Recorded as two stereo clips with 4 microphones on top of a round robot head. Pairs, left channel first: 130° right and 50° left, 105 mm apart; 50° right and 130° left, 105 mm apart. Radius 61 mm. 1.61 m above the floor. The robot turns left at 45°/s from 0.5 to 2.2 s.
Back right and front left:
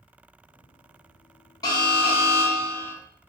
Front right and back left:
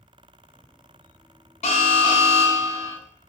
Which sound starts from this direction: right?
An alarm, at 1.6 s.